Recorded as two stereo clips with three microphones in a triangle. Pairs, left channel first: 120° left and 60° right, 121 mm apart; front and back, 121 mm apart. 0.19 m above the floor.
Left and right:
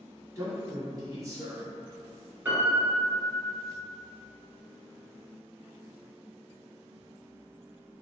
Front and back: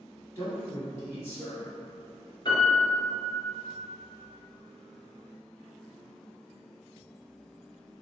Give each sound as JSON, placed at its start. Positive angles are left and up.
{"t": 0.3, "sound": "a man speaking", "azimuth_deg": -40, "distance_m": 1.2}
{"t": 2.5, "sound": "a piano", "azimuth_deg": 0, "distance_m": 1.3}